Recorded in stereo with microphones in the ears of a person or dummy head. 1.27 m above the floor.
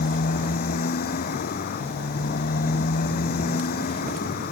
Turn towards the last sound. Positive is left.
turn(degrees=50)  # may be behind; listen again after turning